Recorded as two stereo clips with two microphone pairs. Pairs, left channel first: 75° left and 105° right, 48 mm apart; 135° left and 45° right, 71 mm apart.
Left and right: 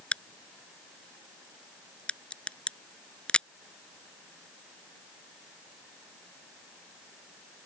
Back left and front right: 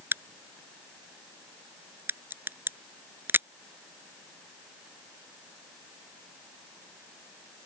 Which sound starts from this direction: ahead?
A crack, at 0.1 s.